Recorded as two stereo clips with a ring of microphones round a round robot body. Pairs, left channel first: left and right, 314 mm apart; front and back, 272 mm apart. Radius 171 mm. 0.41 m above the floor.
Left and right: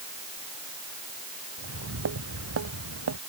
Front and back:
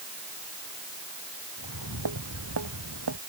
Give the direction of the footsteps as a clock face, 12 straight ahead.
5 o'clock.